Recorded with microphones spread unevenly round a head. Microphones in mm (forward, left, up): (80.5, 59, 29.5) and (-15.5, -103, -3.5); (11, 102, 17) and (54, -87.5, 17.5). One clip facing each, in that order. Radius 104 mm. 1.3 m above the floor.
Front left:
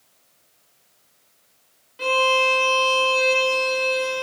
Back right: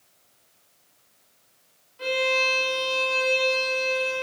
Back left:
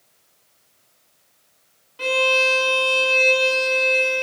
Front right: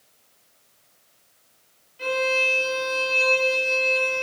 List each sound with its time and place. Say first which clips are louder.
2.0 s a violin: front left 4 dB, back left 3 dB; 90° left, 1.1 m